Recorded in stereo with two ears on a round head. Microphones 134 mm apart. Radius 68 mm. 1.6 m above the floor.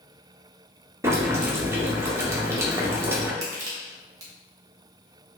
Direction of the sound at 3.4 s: 20° right (ahead or behind).